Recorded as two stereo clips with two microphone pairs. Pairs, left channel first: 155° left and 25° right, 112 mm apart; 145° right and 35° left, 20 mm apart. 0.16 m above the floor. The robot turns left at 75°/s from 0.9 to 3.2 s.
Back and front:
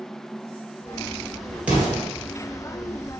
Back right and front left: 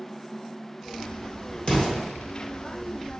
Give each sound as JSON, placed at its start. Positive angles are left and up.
{"t": 1.7, "sound": "an explosion", "azimuth_deg": -105, "distance_m": 1.6}